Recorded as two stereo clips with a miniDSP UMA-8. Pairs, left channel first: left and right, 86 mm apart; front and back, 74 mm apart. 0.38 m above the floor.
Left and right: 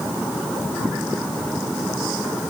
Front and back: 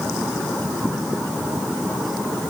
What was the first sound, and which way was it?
Only background noise.